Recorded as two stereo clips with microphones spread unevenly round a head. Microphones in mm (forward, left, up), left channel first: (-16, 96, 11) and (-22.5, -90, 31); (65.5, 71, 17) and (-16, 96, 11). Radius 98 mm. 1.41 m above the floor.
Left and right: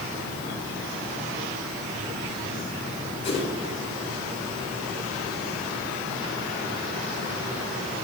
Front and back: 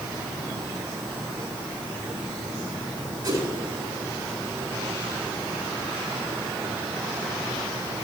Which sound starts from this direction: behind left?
A whoosh, at 3.2 s.